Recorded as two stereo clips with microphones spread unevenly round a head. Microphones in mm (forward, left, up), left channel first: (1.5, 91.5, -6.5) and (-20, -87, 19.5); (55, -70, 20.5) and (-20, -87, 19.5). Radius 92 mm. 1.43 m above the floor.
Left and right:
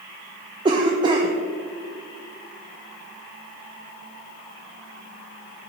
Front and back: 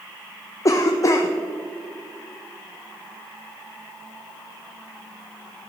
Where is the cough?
35° right, 0.6 m.